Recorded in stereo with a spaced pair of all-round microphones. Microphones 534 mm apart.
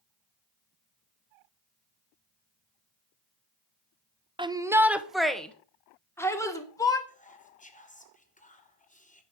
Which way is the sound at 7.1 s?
15° left (ahead or behind).